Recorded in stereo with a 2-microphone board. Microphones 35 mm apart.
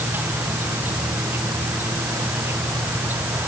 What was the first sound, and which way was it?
An insect, 80° right.